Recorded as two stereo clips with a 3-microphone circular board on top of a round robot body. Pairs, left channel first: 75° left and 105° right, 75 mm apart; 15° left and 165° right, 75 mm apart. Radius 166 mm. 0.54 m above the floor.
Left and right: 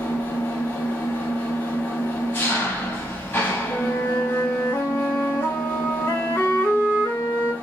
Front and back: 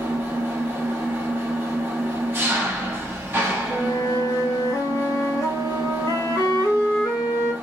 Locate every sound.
0.0 s an engine running: 135° left, 1.0 m
3.7 s a flute: 25° left, 1.3 m